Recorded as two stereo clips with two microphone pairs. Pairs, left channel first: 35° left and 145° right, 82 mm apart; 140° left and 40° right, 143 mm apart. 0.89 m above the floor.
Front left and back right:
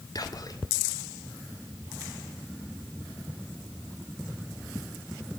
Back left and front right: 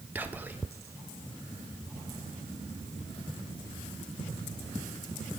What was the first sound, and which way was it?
Whispering, 35° left.